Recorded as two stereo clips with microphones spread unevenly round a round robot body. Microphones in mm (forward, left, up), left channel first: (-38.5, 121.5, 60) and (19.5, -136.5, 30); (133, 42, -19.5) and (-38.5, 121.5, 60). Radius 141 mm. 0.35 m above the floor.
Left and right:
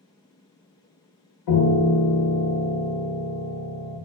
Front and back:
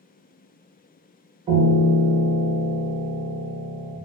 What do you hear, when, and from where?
1.5 s a piano: 85° left, 0.9 m